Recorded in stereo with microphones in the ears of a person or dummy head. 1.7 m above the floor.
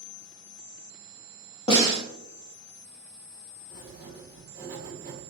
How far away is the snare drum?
About 1.2 m.